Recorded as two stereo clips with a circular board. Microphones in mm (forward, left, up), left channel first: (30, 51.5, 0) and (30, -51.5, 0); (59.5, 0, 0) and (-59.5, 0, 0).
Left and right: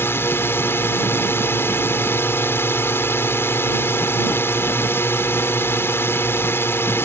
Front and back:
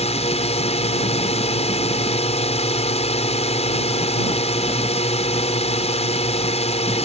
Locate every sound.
0.0 s a drone: 25° left